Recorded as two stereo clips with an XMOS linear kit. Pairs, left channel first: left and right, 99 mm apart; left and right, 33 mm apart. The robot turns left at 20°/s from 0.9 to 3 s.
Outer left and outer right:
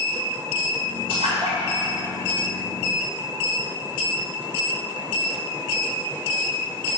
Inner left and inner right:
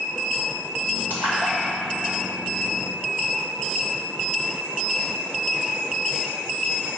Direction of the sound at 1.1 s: 85° right.